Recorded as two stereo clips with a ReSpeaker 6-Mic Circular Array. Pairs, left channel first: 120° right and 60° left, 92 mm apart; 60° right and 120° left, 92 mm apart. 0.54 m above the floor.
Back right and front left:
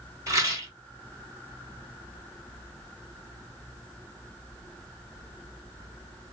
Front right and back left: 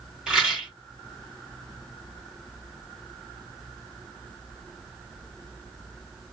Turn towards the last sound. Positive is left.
turn(degrees=50)